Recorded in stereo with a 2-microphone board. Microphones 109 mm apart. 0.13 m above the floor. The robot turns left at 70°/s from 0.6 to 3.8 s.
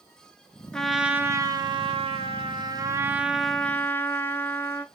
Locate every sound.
0.7 s a trumpet: 10° left, 0.5 m; by 4.8 s 155° left, 0.5 m